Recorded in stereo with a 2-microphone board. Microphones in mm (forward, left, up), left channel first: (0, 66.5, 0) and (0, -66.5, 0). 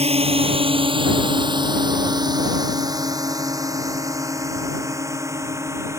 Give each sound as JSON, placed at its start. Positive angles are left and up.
{"t": 0.0, "sound": "a drone", "side_deg": -50}